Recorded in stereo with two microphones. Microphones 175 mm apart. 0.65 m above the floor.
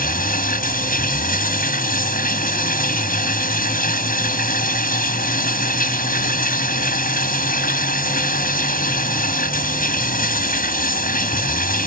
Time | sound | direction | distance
0.0 | running water | 55° left (ahead or behind) | ?